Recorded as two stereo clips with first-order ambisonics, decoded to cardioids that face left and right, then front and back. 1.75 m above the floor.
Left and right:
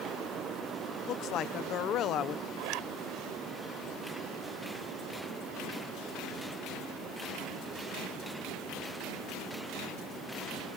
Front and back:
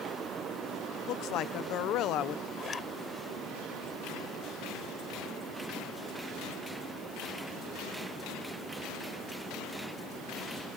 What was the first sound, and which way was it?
A woman speaking, 40° left.